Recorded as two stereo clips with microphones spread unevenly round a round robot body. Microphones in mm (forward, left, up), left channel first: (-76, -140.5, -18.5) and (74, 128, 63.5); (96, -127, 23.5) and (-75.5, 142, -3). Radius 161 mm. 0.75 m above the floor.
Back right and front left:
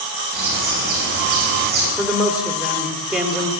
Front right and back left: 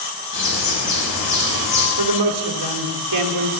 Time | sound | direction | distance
0.3 | a bird | 5° right | 7 m
2.0 | a man speaking | 150° left | 2 m